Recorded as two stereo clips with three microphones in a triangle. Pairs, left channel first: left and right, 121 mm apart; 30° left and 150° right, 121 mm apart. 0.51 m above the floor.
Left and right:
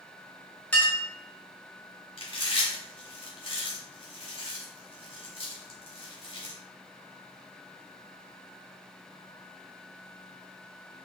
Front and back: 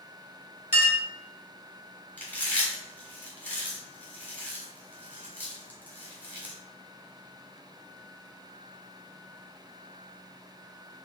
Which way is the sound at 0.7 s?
15° left.